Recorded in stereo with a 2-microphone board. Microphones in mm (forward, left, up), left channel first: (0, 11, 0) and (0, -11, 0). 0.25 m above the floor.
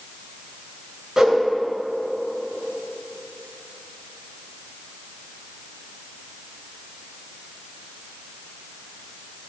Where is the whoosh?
25° right (ahead or behind), 2.5 m.